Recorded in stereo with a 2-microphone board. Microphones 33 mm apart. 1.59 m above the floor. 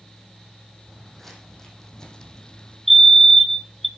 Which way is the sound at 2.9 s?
Centre (ahead or behind).